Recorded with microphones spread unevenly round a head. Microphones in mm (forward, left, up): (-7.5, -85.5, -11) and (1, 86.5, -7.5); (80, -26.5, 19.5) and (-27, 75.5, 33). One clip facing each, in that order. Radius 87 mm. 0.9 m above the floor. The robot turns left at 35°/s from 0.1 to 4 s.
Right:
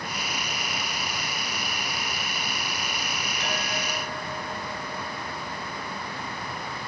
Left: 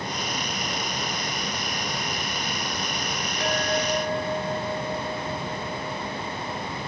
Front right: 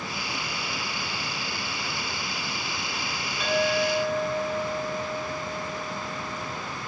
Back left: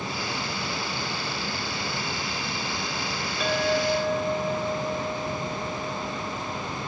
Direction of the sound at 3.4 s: 135° left.